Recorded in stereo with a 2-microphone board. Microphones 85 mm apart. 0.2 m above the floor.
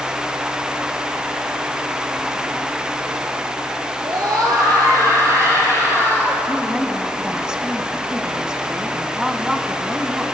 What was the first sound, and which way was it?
A scream, 50° right (ahead or behind).